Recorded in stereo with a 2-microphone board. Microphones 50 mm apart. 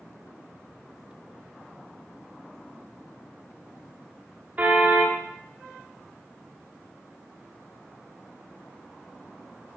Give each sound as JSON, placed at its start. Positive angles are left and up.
{"t": 4.6, "sound": "a car horn", "side_deg": -35, "distance_m": 8.0}